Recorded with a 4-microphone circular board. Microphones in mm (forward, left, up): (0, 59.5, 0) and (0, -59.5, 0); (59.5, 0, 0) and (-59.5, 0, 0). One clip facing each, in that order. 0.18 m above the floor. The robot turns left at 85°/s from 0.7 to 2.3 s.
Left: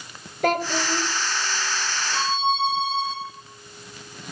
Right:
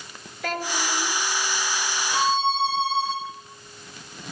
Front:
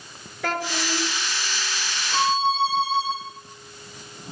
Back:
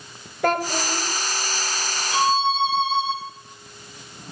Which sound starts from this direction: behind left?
A child speaking, at 0.4 s.